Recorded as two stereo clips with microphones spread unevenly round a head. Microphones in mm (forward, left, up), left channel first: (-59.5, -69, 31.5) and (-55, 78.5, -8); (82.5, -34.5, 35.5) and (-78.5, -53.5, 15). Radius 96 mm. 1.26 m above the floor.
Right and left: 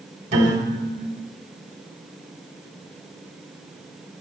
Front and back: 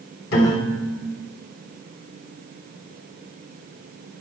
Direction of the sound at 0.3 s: 30° left.